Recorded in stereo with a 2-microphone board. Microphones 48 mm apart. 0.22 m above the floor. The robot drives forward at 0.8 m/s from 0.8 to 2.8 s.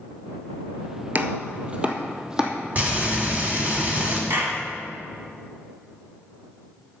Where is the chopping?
40° right (ahead or behind), 0.7 m; by 2.5 s 15° right (ahead or behind), 1.7 m.